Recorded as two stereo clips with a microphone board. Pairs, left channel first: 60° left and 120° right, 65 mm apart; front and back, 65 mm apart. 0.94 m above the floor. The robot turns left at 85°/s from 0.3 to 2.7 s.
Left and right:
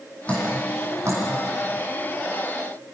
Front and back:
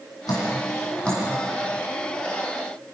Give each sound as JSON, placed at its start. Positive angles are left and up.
{"t": 0.3, "sound": "dripping", "azimuth_deg": -10, "distance_m": 8.5}